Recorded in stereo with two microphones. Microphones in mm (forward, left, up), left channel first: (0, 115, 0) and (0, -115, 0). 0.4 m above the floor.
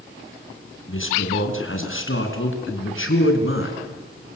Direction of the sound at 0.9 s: 60° left (ahead or behind).